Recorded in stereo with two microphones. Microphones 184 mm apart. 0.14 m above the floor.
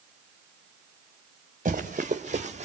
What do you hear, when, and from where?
1.6 s running footsteps: 40° right (ahead or behind), 3 m; by 2.7 s 35° right (ahead or behind), 2 m